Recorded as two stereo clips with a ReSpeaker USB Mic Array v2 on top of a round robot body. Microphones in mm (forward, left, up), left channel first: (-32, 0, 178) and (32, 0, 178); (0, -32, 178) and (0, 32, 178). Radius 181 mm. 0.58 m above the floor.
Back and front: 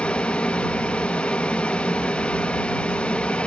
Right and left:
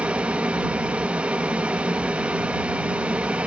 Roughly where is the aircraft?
Behind left.